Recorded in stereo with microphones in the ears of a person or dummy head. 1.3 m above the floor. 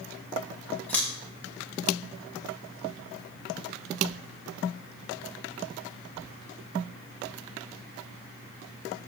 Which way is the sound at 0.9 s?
10° left (ahead or behind).